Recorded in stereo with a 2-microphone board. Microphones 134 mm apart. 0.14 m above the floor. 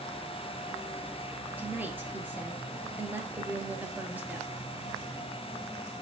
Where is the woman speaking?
15° right (ahead or behind), 2.5 m.